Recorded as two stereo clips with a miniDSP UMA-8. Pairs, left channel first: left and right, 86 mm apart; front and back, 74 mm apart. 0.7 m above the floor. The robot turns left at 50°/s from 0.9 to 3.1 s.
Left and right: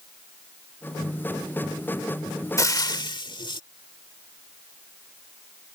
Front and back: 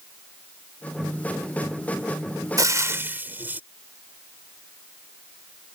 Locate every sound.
2.6 s frying: 145° left; by 3.6 s 120° left